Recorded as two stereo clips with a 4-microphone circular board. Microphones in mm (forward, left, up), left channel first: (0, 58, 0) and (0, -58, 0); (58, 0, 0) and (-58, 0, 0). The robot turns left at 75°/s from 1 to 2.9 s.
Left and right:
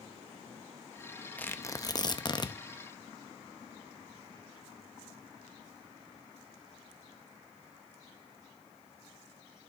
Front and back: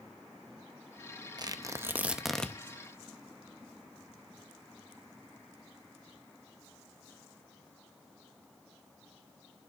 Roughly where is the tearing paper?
Behind.